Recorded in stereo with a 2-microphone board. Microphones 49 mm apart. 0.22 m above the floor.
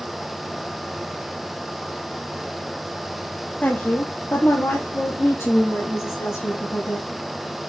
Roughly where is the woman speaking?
Left.